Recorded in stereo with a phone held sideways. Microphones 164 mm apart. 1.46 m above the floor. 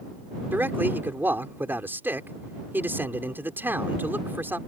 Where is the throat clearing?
No throat clearing in this recording.